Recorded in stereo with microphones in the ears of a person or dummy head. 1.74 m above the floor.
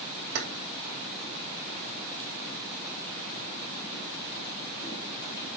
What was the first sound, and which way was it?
Keys jangling, 55° right (ahead or behind).